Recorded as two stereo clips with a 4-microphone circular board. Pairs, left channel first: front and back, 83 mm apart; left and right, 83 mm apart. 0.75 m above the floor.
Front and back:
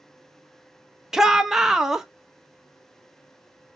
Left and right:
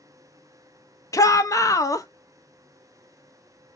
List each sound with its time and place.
1.1 s a shout: 100° left, 0.8 m